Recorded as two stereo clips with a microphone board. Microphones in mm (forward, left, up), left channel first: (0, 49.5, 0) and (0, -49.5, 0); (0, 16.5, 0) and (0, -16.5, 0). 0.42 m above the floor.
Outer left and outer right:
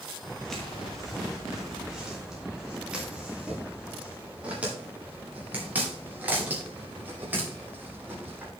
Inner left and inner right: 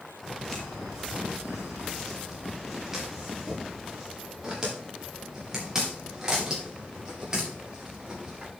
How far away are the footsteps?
About 4 m.